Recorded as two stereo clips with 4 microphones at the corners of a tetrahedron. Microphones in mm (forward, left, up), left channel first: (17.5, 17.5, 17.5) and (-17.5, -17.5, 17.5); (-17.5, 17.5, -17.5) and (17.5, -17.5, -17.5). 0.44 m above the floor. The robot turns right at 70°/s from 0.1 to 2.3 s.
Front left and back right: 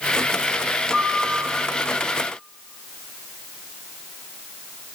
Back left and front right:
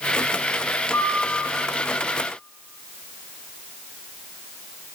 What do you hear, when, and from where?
0.9 s a piano: 160° left, 3.5 m; by 1.2 s straight behind, 3.5 m